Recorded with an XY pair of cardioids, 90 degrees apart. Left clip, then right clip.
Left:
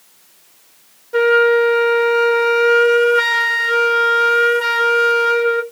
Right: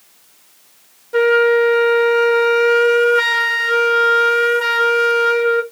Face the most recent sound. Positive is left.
turn(degrees=0)